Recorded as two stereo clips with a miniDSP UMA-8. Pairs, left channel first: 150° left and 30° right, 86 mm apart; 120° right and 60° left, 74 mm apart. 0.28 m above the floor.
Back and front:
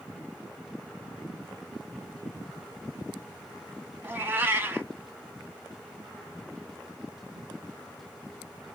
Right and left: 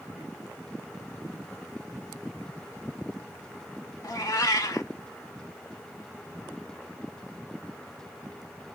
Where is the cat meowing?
95° right, 0.5 m.